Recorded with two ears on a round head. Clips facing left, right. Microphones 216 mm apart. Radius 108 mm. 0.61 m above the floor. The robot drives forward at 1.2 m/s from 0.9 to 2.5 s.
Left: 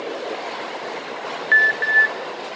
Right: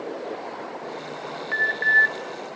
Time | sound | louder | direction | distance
1.5 | an alarm | left 3 dB | 25° left (ahead or behind) | 0.5 m